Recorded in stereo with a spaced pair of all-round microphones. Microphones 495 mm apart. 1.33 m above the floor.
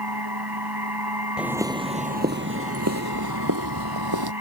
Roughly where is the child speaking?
No child speaking in this recording.